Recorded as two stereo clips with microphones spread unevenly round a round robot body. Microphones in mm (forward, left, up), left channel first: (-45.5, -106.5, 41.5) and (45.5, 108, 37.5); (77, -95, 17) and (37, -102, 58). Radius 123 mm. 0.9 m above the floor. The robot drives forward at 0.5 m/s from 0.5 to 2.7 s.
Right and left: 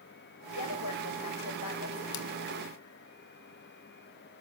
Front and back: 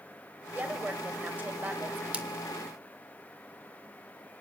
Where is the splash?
105° right, 3 m.